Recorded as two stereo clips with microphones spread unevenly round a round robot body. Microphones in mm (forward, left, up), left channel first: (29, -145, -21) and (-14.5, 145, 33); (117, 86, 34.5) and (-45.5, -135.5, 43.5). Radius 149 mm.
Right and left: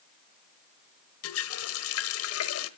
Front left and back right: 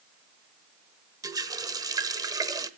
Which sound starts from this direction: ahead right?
A running tap, at 1.2 s.